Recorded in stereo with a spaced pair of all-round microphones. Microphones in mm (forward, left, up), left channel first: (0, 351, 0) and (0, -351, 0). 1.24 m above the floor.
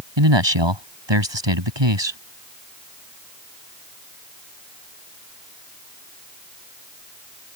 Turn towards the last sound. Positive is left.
turn(degrees=-40)  # may be behind; listen again after turning